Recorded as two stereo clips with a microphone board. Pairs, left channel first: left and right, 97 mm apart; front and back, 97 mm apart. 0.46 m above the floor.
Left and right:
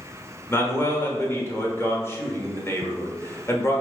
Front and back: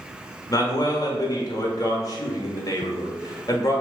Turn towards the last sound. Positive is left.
turn(degrees=35)